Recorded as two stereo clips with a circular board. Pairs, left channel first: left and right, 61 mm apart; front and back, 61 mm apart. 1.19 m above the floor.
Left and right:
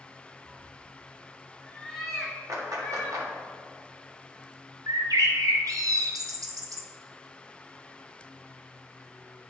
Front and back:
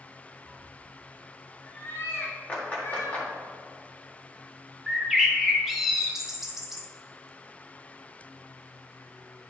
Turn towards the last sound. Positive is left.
turn(degrees=-95)